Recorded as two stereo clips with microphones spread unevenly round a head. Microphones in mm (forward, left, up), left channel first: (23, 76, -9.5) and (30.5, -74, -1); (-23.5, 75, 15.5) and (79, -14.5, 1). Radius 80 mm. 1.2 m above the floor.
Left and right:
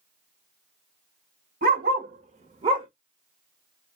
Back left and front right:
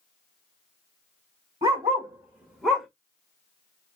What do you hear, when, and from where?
1.6 s a dog barking: 110° right, 1.9 m; by 2.9 s 140° right, 1.2 m